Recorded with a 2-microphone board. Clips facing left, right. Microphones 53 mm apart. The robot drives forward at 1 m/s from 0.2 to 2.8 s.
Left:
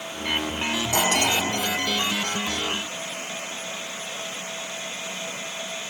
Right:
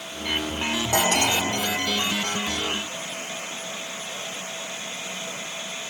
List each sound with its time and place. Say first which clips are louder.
0.9 s cutlery clinking: right 1 dB; 80° right, 5 m; by 1.4 s 75° right (ahead or behind), 5 m